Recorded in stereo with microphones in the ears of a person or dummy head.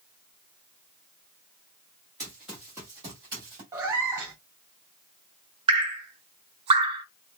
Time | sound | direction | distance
2.2 | running footsteps | 5° left (ahead or behind) | 1.5 m
3.7 | a cat meowing | 10° right (ahead or behind) | 0.5 m
5.7 | dripping | 35° right (ahead or behind) | 0.8 m